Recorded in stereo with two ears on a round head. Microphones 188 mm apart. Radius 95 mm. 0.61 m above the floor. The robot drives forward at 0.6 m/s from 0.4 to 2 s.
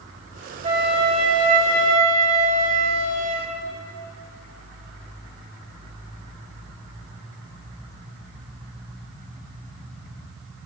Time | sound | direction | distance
0.6 | a flute | 25° right (ahead or behind) | 2.5 m